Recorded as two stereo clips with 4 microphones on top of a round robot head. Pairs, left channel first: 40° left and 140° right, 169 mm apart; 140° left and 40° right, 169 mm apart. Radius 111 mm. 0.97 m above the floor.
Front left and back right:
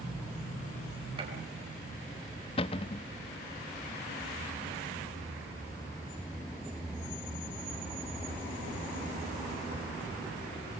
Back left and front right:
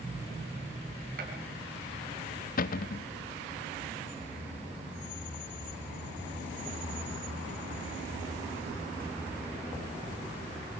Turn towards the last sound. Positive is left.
turn(degrees=100)